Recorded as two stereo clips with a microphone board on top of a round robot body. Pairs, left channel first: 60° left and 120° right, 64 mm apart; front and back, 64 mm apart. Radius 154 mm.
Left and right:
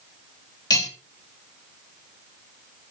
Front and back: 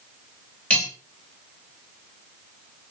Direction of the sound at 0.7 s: 70° left.